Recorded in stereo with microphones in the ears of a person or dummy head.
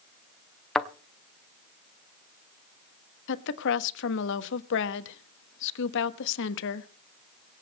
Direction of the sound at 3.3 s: 65° left (ahead or behind).